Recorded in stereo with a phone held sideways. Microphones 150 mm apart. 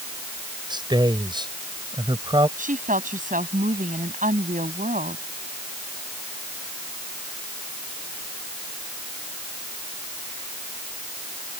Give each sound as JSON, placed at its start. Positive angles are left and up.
{"t": 0.7, "sound": "a man speaking", "side_deg": -30}
{"t": 2.6, "sound": "a woman speaking", "side_deg": -60}